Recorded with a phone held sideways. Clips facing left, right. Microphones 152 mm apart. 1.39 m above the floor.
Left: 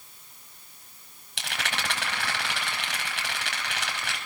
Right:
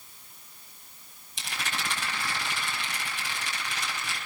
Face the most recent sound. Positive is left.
turn(degrees=70)  # may be behind; listen again after turning